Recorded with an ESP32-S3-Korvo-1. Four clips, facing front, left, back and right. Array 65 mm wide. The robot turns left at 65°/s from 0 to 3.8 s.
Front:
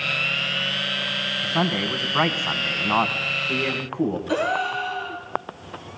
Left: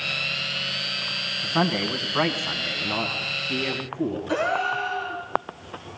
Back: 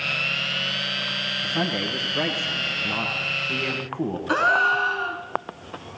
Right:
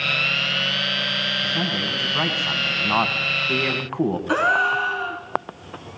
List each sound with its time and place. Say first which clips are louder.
1.4 s a man speaking: left 1 dB, front 3 dB; 60° left, 2.5 m; by 4.2 s 95° right, 2.5 m
4.3 s a gasp: right 6 dB, back 4 dB; 140° right, 4 m